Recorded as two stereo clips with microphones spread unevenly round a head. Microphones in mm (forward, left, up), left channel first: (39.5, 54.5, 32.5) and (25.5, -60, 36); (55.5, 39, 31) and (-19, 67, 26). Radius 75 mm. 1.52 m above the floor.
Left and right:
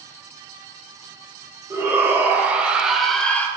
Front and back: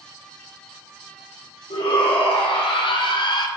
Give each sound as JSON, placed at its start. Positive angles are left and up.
{"t": 1.7, "sound": "a shout", "azimuth_deg": -30, "distance_m": 1.9}